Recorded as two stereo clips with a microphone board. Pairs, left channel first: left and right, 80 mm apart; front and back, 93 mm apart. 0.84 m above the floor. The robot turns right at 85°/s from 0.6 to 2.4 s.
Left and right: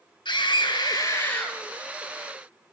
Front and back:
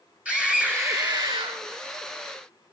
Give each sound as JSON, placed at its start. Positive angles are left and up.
{"t": 0.2, "sound": "a scream", "azimuth_deg": 100, "distance_m": 3.0}